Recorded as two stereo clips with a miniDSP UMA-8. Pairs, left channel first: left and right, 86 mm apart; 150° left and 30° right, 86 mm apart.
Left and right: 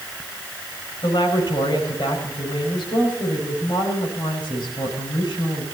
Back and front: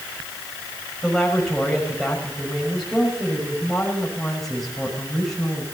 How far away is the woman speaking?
About 6 m.